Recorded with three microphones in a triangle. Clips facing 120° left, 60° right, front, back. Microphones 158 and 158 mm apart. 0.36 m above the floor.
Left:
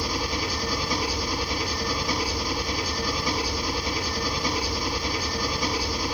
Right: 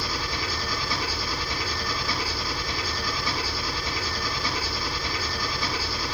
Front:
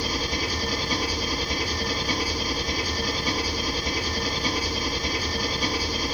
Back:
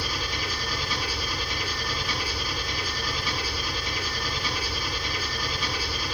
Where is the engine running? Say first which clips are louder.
Left 3 dB, front 5 dB; 50° left, 4 m.